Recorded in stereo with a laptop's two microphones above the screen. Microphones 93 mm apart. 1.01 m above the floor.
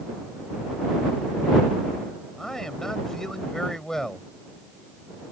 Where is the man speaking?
5° left (ahead or behind).